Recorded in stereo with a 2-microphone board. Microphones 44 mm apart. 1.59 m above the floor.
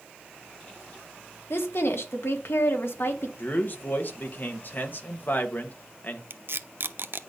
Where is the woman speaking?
65° left (ahead or behind), 1.9 m.